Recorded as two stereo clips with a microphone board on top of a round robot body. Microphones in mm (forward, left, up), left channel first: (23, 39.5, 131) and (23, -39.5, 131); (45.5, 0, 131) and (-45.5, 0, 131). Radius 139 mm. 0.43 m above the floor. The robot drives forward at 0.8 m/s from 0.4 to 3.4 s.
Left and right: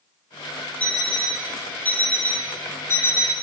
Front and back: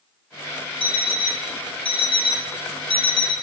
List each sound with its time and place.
0.8 s an alarm clock: 15° left, 3.5 m; by 3.3 s 35° left, 1.5 m